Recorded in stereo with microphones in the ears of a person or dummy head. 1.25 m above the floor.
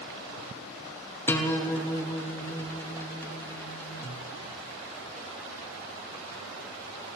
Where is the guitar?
10° left (ahead or behind), 0.5 m.